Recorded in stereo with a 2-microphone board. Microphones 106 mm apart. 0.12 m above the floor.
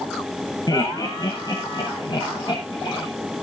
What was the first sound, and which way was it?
Laughter, 35° left (ahead or behind).